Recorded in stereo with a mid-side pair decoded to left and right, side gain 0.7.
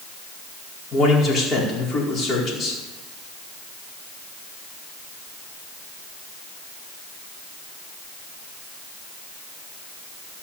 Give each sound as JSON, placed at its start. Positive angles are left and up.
{"t": 0.9, "sound": "a man speaking", "azimuth_deg": 30, "distance_m": 4.5}